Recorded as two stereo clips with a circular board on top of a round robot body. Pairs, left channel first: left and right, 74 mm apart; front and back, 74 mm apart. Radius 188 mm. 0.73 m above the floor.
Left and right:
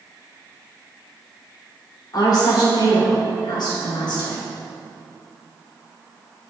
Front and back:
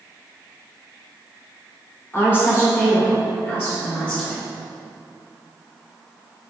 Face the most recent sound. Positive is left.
turn(degrees=65)